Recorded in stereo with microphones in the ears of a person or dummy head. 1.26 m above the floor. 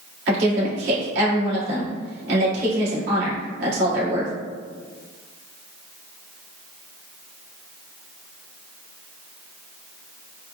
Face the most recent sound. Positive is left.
turn(degrees=-65)  # may be behind; listen again after turning